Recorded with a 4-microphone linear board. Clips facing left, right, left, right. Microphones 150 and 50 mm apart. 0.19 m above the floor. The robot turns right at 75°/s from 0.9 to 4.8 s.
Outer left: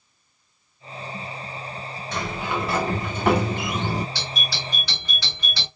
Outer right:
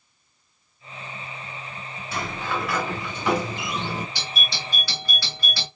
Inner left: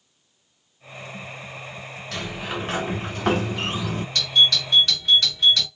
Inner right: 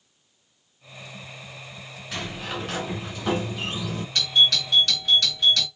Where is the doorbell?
20° right, 2.5 m; by 5.7 s 25° left, 2.5 m.